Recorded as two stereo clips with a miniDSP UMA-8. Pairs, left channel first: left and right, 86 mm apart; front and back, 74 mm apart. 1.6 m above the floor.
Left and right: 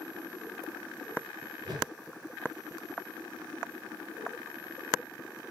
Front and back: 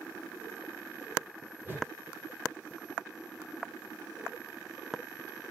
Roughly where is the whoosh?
Behind right.